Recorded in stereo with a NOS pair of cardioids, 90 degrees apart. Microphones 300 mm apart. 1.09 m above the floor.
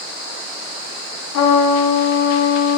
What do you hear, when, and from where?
1.3 s a trumpet: 65° left, 2.0 m